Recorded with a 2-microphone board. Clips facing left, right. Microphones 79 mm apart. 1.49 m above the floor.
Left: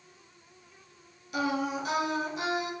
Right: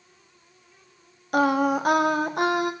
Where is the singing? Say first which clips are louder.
Right 9 dB; 60° right (ahead or behind), 0.6 m.